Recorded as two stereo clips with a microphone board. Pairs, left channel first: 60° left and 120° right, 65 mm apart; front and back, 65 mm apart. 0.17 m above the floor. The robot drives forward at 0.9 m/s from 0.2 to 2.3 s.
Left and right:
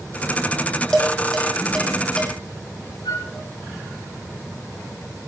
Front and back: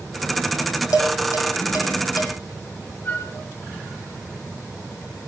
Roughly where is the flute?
Ahead left.